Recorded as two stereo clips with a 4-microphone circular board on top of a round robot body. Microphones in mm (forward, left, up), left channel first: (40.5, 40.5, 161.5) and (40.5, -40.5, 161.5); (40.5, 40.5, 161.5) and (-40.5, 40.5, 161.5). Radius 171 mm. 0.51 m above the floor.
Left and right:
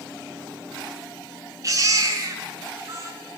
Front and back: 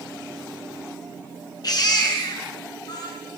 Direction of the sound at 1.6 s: 40° right.